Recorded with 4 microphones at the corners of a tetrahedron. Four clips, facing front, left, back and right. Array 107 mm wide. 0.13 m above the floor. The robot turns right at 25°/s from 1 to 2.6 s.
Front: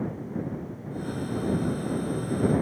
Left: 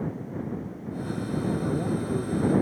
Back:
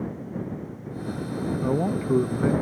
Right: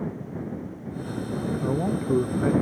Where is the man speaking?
155° right; by 2.5 s 135° right.